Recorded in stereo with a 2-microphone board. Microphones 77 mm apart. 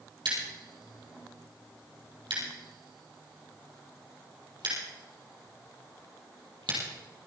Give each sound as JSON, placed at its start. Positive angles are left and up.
{"t": 0.2, "sound": "scissors", "side_deg": -85, "distance_m": 5.0}